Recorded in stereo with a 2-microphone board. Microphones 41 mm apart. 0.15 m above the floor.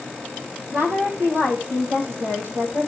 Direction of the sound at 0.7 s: 70° right (ahead or behind).